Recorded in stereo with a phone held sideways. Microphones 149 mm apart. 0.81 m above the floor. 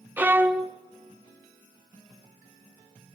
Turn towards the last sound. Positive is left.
turn(degrees=-10)  # may be behind; listen again after turning